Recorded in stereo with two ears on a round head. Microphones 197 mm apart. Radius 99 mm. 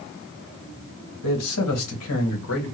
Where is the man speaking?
90° left, 2.5 m; by 2.7 s 70° left (ahead or behind), 2.5 m.